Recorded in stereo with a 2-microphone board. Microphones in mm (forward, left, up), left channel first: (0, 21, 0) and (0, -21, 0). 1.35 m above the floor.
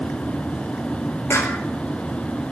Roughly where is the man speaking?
I don't hear a man speaking.